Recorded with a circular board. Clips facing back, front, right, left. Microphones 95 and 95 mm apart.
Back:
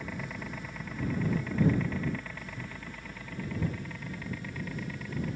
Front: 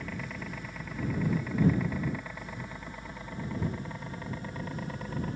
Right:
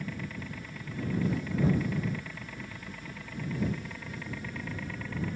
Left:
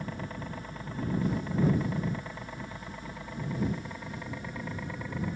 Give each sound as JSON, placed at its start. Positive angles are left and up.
{"t": 0.0, "sound": "a helicopter", "azimuth_deg": 95}